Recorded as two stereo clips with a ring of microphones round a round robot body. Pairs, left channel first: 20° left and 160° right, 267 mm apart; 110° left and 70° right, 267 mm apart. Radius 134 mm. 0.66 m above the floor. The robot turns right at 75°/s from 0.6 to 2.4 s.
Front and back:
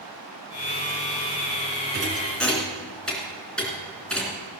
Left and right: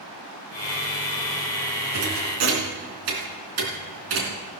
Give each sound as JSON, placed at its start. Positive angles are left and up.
{"t": 1.9, "sound": "a thud", "azimuth_deg": -100, "distance_m": 3.0}